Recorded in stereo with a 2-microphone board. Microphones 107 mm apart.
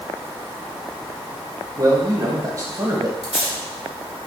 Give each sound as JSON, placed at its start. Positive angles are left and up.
{"t": 1.8, "sound": "a man speaking", "side_deg": -35, "distance_m": 0.9}
{"t": 3.2, "sound": "tape being pulled", "side_deg": 65, "distance_m": 1.3}